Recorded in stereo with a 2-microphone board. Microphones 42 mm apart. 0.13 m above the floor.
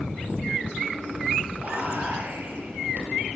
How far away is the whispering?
About 2.5 m.